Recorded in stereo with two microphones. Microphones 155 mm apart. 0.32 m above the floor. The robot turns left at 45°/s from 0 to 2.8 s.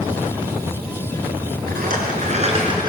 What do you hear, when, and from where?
1.7 s a rattle: 100° right, 4.5 m; by 2.9 s 150° right, 4.5 m